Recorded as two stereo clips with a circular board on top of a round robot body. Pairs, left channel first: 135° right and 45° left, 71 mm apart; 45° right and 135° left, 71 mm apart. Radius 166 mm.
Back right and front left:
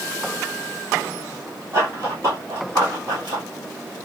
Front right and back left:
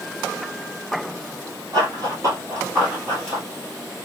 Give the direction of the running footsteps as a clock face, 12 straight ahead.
9 o'clock.